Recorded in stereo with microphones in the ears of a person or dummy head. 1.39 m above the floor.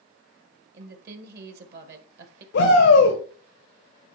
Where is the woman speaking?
60° right (ahead or behind), 1.4 m.